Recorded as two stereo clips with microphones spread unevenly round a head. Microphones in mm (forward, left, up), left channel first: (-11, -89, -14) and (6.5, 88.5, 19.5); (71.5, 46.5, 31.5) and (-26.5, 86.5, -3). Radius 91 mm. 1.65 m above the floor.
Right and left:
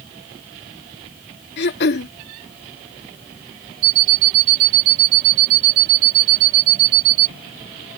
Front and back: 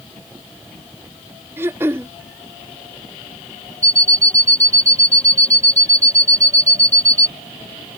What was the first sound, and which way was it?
Throat clearing, 115° right.